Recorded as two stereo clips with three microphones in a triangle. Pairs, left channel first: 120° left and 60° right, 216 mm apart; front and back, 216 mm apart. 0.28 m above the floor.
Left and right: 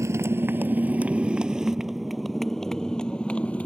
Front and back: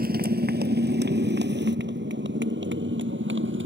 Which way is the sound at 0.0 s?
135° right.